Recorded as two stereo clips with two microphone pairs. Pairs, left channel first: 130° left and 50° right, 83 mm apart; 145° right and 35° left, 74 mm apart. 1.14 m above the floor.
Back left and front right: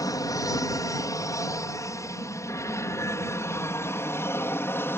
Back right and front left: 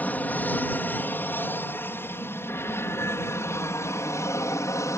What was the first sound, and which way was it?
An aircraft, 155° left.